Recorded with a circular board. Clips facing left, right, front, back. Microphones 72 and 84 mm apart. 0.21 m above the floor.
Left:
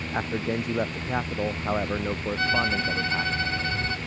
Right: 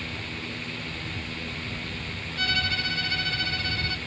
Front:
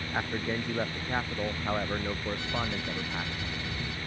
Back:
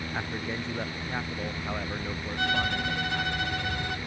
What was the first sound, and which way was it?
A man speaking, 75° left.